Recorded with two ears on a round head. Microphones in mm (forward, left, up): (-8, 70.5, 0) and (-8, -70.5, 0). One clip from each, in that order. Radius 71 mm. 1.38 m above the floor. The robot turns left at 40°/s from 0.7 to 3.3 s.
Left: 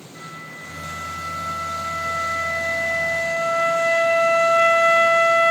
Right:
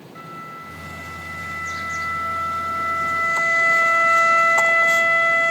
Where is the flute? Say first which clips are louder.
Right 1 dB; 165° right, 3.5 m; by 5.5 s 95° left, 3.5 m.